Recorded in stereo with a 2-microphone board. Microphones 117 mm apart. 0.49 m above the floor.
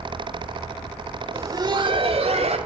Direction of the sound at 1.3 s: 20° right (ahead or behind).